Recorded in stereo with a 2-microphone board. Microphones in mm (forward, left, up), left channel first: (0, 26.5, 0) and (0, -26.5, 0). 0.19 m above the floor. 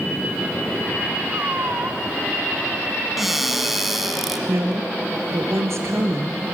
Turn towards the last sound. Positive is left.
turn(degrees=-55)  # may be behind; listen again after turning